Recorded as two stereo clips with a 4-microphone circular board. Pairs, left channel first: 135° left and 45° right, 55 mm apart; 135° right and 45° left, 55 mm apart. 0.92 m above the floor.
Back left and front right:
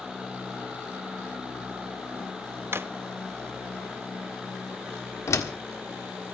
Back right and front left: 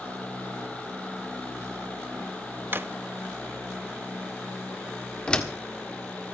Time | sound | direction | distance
2.7 | a drawer | 5° right | 0.6 m
5.3 | a door slam | 150° left | 1.6 m